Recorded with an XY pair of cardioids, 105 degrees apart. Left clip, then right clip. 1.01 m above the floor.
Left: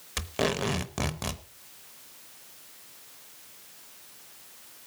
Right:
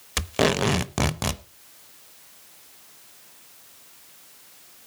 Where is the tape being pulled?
45° right, 0.7 m.